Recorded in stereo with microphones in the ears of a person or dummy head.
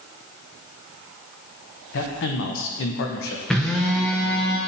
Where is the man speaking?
60° left (ahead or behind), 0.9 m.